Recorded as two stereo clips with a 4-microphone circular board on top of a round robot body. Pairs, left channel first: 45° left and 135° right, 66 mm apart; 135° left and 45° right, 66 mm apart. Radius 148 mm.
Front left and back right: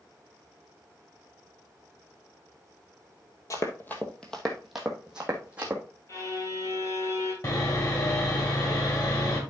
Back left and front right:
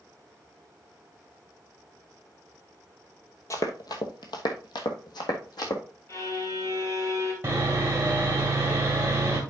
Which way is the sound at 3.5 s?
90° left.